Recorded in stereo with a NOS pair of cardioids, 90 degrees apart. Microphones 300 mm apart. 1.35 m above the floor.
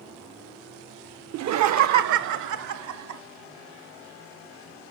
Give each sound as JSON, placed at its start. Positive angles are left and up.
{"t": 1.3, "sound": "laughter", "azimuth_deg": -60, "distance_m": 0.6}